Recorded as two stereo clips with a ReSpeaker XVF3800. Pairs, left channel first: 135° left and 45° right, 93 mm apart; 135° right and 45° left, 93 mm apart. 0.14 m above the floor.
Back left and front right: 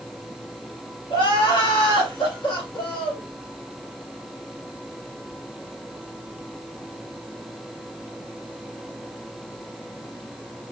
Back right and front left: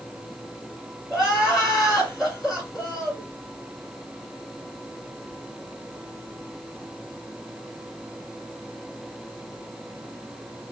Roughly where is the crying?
Behind left.